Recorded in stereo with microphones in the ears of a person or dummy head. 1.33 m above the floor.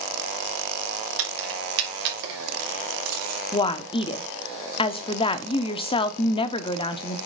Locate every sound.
1.2 s keys jangling: 80° right, 1.7 m; by 3.4 s 50° right (ahead or behind), 3.5 m
3.5 s a woman speaking: 30° left (ahead or behind), 0.7 m